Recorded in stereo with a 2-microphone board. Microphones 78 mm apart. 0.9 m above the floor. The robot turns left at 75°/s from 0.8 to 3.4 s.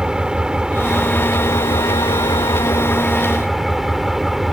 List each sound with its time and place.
0.0 s an engine running: 170° right; by 4.5 s 5° right